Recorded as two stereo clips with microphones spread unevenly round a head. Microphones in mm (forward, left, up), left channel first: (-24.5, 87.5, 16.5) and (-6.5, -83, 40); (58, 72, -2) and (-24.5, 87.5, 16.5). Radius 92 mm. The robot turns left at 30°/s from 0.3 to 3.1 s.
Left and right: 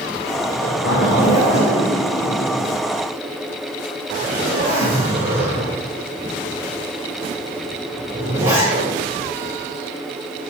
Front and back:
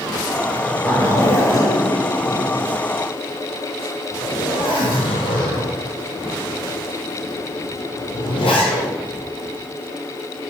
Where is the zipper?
70° left, 4 m; by 8.9 s 10° right, 4 m.